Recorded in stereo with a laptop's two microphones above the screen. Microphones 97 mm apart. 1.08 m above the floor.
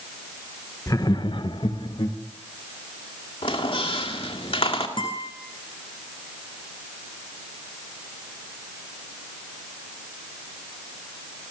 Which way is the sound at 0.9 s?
35° left (ahead or behind).